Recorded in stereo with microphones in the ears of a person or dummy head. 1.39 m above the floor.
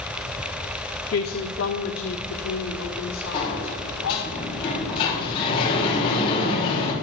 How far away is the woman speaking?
About 0.7 m.